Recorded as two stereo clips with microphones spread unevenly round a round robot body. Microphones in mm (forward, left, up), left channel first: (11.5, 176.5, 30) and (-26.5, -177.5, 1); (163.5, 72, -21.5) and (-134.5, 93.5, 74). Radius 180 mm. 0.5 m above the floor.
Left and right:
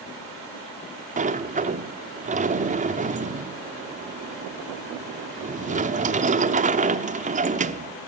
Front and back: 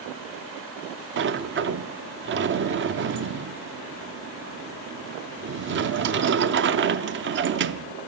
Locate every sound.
1.2 s a sliding door: 130° right, 0.8 m